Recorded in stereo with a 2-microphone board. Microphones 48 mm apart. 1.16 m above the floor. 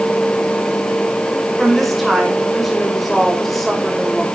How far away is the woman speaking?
About 5 m.